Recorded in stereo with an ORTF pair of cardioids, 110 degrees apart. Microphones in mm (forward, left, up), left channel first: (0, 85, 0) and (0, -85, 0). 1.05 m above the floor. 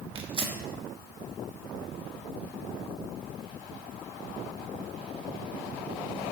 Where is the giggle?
I don't hear a giggle.